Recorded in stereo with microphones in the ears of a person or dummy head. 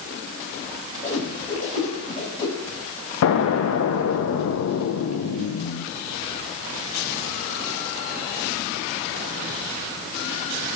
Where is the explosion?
70° left (ahead or behind), 0.6 m.